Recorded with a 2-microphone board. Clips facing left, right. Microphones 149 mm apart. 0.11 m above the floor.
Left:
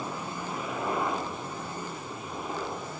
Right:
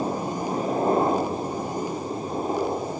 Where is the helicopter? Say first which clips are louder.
Right 9 dB; 40° right (ahead or behind).